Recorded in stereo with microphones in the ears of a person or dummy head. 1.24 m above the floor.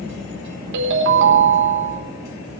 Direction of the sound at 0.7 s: 65° right (ahead or behind).